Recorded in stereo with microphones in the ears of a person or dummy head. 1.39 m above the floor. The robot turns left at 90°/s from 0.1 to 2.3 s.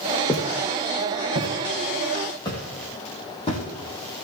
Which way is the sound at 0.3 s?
5° left (ahead or behind).